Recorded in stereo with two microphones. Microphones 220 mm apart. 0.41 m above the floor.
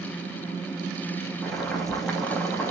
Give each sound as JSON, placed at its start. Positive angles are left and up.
{"t": 1.4, "sound": "boiling", "side_deg": 0, "distance_m": 4.0}